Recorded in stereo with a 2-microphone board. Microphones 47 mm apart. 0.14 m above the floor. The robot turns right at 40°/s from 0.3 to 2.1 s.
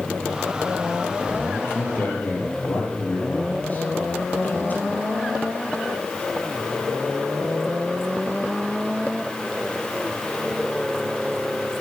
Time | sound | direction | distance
1.5 | a man speaking | 55° left (ahead or behind) | 4.5 m